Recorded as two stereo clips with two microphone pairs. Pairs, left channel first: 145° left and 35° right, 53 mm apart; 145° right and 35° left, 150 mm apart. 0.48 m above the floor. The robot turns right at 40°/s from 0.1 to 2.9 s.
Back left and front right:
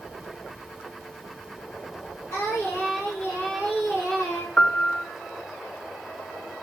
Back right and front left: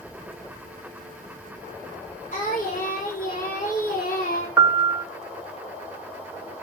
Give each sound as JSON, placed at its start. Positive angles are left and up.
{"t": 2.3, "sound": "singing", "azimuth_deg": 180, "distance_m": 6.5}
{"t": 4.6, "sound": "a piano", "azimuth_deg": 90, "distance_m": 0.7}